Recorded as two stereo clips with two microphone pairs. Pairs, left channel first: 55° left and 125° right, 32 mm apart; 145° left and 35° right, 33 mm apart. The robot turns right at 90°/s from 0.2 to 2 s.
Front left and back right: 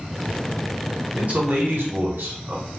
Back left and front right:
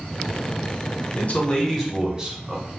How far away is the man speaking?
About 1.0 m.